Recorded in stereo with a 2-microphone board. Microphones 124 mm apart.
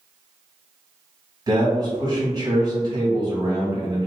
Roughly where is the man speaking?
Right.